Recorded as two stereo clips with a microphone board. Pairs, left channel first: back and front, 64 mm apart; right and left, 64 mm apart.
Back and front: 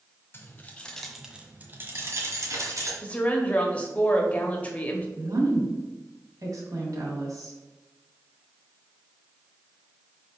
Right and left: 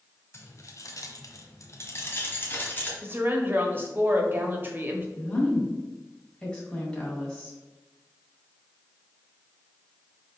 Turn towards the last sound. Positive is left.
turn(degrees=-15)